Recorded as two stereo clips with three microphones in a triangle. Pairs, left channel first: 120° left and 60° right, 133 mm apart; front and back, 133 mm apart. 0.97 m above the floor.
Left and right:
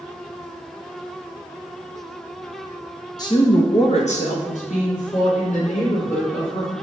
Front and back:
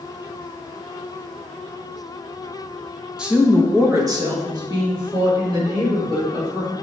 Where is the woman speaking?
100° left, 0.9 m; by 6.7 s 130° left, 4 m.